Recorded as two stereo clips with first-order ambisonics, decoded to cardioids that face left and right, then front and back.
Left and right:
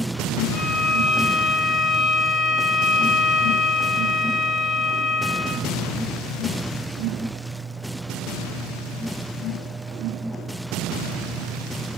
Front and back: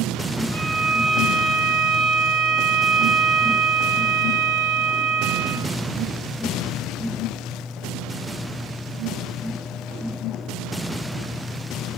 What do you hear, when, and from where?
0.5 s a violin: 175° right, 1.1 m